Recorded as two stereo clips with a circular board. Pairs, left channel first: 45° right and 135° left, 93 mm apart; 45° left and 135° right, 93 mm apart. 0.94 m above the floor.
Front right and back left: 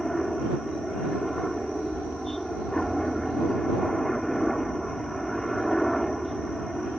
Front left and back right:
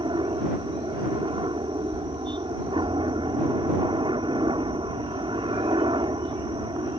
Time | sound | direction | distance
0.0 | a helicopter | 135° right | ?